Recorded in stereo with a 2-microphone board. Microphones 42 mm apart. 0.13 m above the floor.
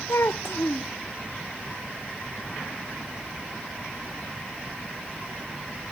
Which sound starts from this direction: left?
A child speaking, at 0.1 s.